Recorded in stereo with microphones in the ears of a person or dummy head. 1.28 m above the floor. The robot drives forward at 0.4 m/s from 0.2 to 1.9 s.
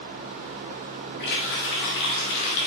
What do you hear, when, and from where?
1.2 s a running tap: 60° left (ahead or behind), 1.6 m; by 2.7 s 70° left (ahead or behind), 1.5 m